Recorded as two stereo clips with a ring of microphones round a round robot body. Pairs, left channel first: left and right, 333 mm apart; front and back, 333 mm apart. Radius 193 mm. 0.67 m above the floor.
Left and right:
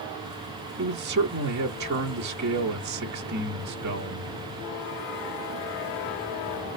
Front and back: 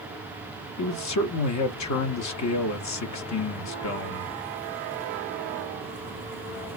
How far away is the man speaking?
About 0.9 m.